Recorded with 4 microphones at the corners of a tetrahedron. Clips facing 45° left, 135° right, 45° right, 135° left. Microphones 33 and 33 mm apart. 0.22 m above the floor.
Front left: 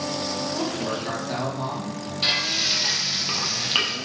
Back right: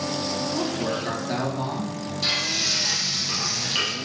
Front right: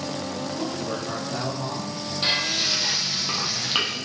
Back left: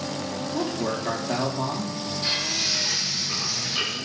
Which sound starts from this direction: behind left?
A man speaking, at 0.5 s.